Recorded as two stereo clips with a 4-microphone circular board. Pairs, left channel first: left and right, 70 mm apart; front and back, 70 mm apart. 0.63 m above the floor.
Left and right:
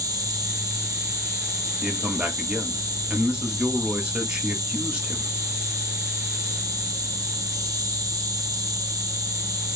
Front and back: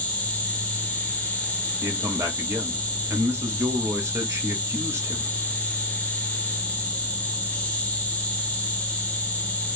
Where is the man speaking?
160° right, 1.0 m.